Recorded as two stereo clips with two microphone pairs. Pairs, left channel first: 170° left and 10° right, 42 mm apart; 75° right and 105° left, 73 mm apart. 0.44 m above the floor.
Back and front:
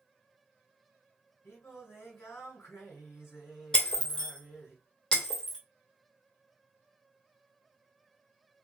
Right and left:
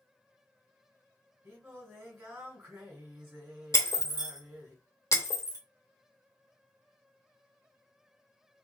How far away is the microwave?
I don't hear a microwave.